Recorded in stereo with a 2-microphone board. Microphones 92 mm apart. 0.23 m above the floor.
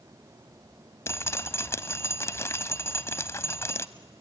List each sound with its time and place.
1.1 s dripping: 30° left (ahead or behind), 0.6 m